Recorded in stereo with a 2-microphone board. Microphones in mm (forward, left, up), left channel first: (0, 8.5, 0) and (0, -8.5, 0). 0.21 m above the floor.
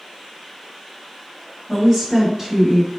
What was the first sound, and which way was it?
A woman speaking, 30° right (ahead or behind).